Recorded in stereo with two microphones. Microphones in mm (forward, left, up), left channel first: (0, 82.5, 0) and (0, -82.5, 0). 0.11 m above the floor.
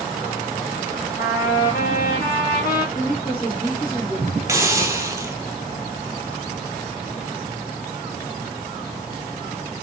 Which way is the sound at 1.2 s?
75° left (ahead or behind).